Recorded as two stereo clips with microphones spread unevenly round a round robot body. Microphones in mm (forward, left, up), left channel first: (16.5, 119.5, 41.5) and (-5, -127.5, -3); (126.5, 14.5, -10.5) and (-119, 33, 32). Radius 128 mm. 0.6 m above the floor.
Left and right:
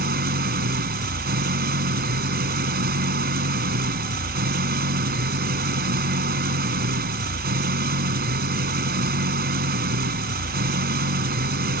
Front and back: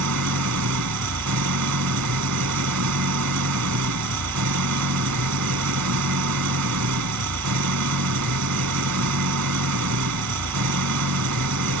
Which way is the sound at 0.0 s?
150° right.